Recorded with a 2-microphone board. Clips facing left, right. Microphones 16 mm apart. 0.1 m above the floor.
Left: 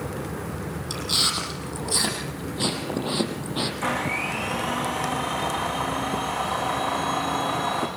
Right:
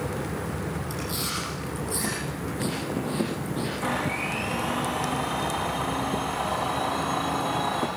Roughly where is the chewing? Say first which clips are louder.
Left 11 dB; left.